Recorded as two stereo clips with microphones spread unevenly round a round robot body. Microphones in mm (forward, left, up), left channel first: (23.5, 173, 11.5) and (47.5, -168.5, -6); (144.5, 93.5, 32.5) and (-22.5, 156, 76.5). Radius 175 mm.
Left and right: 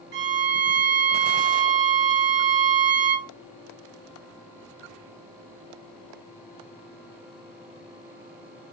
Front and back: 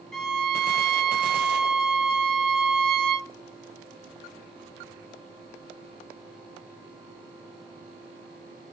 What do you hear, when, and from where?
0.1 s a violin: 80° right, 0.6 m